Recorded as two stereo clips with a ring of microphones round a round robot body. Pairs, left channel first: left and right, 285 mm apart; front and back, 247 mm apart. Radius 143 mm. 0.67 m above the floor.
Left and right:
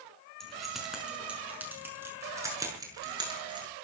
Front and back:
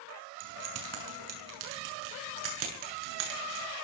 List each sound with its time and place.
0.4 s keys jangling: straight behind, 5.5 m; by 3.7 s 165° right, 7 m